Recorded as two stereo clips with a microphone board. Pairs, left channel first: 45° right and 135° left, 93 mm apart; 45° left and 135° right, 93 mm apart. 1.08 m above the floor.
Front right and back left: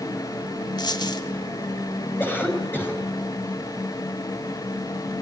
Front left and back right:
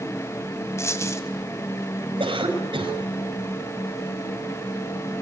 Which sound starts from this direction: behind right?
A cough, at 2.2 s.